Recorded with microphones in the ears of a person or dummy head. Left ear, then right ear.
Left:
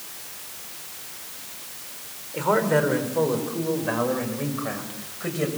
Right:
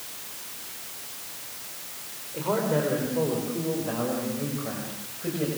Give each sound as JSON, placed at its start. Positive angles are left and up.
{"t": 2.3, "sound": "a man speaking", "side_deg": 55, "distance_m": 4.5}